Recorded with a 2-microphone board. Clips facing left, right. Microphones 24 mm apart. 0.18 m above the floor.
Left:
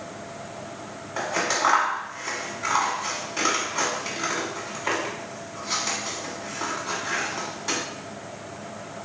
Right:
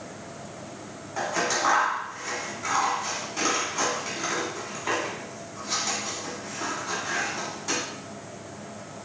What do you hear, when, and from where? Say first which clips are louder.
1.2 s scissors: left 1 dB; 25° left (ahead or behind), 1.2 m